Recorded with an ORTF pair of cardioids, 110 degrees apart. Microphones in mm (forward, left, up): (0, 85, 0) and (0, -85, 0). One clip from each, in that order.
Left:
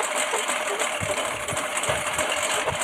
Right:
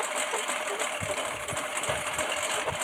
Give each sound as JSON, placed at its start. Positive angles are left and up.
{"t": 0.0, "sound": "a lawn mower", "azimuth_deg": 30}